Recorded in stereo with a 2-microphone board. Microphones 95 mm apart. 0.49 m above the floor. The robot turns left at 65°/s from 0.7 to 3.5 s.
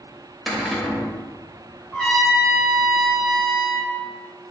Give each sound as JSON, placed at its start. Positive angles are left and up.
{"t": 0.5, "sound": "a cupboard door", "side_deg": 0, "distance_m": 0.9}
{"t": 1.9, "sound": "a trumpet", "azimuth_deg": 180, "distance_m": 0.9}